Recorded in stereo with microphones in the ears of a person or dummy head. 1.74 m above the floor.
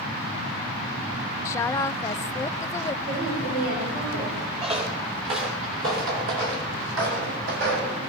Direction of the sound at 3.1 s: 65° right (ahead or behind).